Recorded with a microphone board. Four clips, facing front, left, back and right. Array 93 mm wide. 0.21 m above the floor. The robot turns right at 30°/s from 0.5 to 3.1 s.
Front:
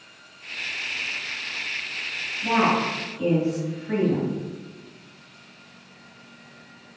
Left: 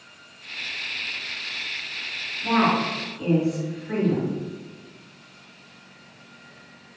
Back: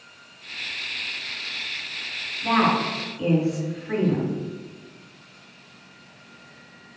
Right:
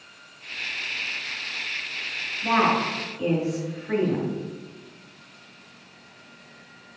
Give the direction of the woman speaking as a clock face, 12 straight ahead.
4 o'clock.